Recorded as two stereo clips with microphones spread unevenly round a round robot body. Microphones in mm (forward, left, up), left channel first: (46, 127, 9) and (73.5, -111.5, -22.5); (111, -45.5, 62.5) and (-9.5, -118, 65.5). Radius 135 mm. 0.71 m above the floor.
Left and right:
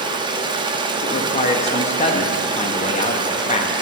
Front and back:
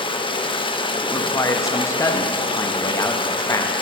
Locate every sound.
0.0 s running water: 20° right, 0.7 m
1.0 s a man speaking: 55° left, 0.5 m